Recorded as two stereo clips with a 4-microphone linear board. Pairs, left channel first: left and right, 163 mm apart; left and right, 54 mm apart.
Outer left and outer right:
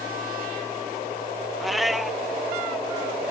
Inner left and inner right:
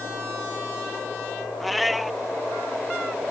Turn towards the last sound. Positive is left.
turn(degrees=0)  # may be behind; listen again after turning